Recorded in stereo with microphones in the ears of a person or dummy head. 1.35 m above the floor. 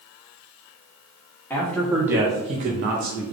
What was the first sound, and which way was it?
A man speaking, 10° left (ahead or behind).